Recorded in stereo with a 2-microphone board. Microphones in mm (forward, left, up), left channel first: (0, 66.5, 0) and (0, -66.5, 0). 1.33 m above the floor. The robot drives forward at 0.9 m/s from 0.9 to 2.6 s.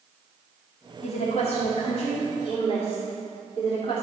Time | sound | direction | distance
1.0 | a woman speaking | 60° left (ahead or behind) | 2.5 m